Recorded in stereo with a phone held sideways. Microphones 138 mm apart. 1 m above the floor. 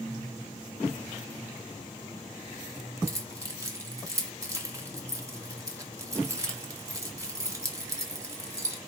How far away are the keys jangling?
About 1.6 m.